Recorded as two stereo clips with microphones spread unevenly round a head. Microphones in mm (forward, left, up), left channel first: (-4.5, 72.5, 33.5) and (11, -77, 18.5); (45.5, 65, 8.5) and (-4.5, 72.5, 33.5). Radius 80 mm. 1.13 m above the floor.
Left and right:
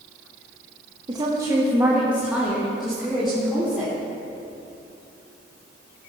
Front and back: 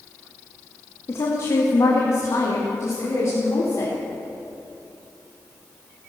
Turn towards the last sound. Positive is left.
turn(degrees=10)